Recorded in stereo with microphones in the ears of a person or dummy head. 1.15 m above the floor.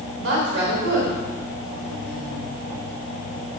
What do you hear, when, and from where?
0.2 s a woman speaking: 65° right (ahead or behind), 3.5 m; by 2.5 s 35° right (ahead or behind), 5 m